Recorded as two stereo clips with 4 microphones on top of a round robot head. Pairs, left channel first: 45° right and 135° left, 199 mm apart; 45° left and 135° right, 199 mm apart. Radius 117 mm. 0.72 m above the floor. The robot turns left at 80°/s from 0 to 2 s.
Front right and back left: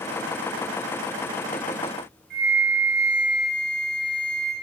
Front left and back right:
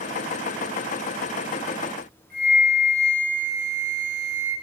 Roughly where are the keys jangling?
I don't hear keys jangling.